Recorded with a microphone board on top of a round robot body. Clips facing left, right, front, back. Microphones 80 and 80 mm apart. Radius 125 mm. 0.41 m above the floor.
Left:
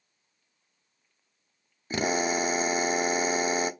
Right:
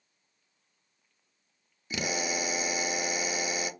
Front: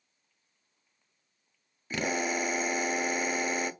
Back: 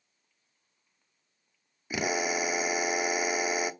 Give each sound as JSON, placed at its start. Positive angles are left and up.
{"t": 1.9, "sound": "a drill", "azimuth_deg": 105, "distance_m": 0.9}